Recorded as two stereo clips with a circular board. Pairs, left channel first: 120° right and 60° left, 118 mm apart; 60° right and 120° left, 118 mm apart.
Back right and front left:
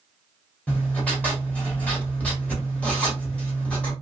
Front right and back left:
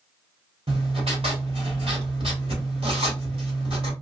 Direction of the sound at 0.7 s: 160° left.